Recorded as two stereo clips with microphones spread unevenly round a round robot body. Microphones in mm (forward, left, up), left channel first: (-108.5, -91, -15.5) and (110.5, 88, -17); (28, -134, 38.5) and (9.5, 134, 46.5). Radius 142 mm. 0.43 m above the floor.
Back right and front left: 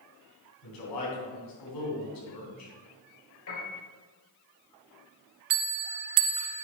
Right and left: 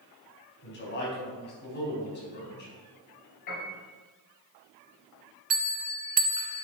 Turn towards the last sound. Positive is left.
turn(degrees=35)